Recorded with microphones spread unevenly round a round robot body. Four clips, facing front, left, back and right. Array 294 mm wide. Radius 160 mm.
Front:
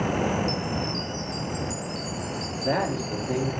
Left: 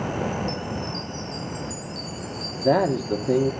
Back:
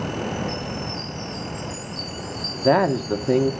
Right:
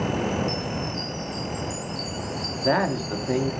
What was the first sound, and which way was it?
A chime, 10° left.